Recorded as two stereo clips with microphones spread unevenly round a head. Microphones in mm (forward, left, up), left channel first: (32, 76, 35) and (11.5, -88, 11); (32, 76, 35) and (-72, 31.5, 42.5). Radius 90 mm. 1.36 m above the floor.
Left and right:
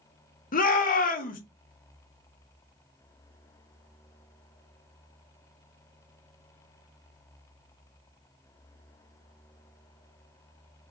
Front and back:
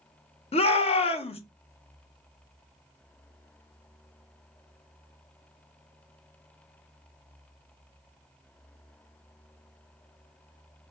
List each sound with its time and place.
0.5 s a shout: 45° left, 1.1 m